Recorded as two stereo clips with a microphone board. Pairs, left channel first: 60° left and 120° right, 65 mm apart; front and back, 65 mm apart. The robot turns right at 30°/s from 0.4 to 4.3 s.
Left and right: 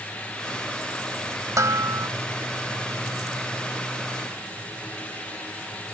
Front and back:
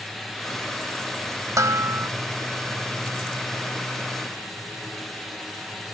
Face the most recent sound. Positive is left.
turn(degrees=-70)